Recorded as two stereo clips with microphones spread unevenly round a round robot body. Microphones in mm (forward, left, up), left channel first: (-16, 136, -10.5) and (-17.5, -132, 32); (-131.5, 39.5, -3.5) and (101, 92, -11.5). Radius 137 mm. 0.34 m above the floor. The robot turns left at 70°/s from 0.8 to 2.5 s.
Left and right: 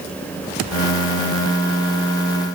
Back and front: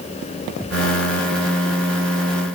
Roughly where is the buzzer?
No buzzer in this recording.